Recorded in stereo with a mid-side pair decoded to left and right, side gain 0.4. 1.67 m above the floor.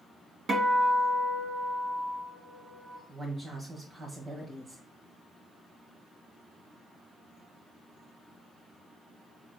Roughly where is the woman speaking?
Ahead right.